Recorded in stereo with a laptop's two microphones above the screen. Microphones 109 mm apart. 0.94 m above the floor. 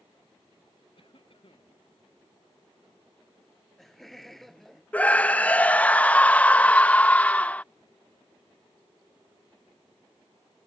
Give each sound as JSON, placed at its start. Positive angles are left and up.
{"t": 0.9, "sound": "a cough", "side_deg": 55}
{"t": 3.4, "sound": "laughter", "side_deg": 0}
{"t": 4.9, "sound": "a scream", "side_deg": 15}